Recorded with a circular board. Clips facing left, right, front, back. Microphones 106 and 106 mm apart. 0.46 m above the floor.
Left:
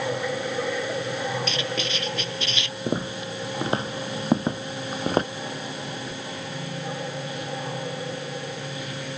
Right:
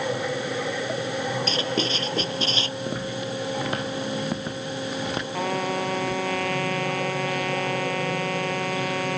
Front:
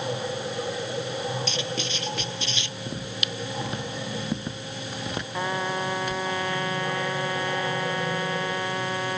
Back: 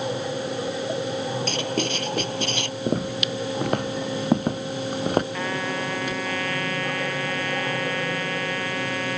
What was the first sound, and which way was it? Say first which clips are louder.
Writing: right 3 dB, back 5 dB; 145° right.